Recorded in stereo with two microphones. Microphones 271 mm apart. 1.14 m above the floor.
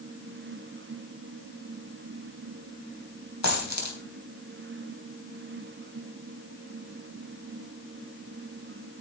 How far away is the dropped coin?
About 3.5 m.